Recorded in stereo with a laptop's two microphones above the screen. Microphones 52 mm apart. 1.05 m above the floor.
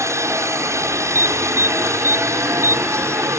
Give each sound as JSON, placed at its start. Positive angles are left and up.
{"t": 0.0, "sound": "a helicopter", "side_deg": -60}
{"t": 1.1, "sound": "an alarm", "side_deg": -55}